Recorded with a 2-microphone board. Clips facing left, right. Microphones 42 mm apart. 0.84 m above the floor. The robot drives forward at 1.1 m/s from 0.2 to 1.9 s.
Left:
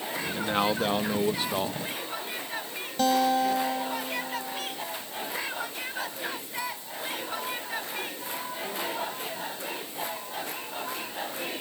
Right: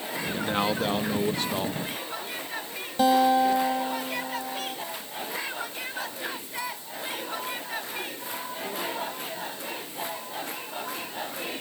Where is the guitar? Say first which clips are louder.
Right 3 dB; 15° right (ahead or behind).